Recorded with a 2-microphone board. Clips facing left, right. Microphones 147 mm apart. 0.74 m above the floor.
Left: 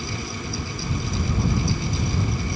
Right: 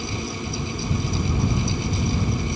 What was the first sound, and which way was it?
Only background noise.